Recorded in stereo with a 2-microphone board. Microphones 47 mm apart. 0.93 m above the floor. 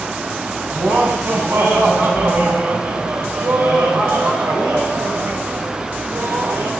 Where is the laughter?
65° right (ahead or behind), 6 m; by 6.7 s 80° right, 3 m.